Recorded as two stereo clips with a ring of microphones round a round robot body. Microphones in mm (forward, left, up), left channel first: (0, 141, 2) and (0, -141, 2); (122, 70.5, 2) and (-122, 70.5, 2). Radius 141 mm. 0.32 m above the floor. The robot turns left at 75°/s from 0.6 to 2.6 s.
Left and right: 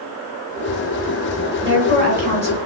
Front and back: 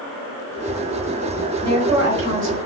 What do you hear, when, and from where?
1.6 s a woman speaking: 80° right, 1.6 m; by 2.6 s 150° right, 1.6 m